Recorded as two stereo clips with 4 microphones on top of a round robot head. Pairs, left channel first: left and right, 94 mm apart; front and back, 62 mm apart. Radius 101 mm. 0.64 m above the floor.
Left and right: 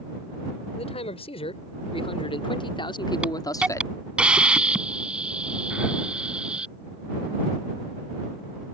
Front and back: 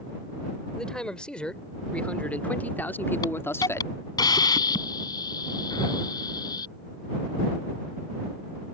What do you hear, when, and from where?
0.8 s a man speaking: 80° left; by 4.0 s 35° left
3.2 s a hiss: 10° right